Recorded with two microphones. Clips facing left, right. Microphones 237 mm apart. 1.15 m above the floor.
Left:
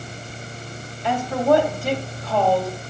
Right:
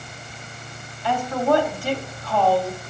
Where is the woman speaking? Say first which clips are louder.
Left 2 dB; 20° left (ahead or behind), 2.5 m.